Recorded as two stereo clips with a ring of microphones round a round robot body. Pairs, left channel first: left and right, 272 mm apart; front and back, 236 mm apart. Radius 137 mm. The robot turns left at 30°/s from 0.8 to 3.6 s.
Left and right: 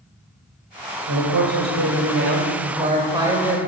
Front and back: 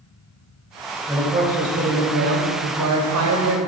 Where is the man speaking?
100° right, 2 m; by 3.6 s 175° right, 2 m.